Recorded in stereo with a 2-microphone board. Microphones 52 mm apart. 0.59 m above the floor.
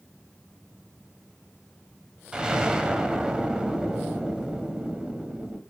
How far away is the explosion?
About 1.2 m.